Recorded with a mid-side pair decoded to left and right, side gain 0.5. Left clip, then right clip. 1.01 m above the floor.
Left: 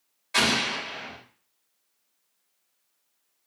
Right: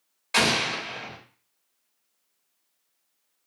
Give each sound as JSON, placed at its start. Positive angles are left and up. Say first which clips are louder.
{"t": 0.3, "sound": "an explosion", "louder": "right 1 dB", "azimuth_deg": -55, "distance_m": 2.5}